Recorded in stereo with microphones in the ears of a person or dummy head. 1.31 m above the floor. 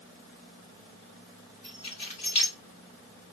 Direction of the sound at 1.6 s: 30° left (ahead or behind).